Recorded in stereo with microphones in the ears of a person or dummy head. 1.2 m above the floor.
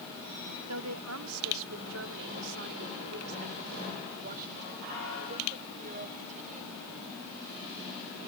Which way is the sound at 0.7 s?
80° right.